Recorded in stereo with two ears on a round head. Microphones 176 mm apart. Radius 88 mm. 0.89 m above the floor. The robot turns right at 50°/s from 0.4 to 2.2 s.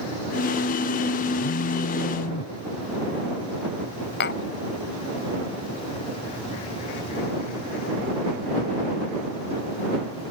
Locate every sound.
1.4 s a phone buzzing: 75° left; by 2.5 s 115° left
4.2 s tapping: 60° left (ahead or behind)